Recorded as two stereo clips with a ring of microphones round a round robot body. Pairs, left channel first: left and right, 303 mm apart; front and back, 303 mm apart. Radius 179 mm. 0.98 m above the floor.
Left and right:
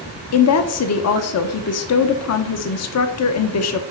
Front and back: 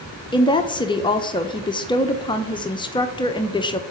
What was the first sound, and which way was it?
A woman speaking, 75° left.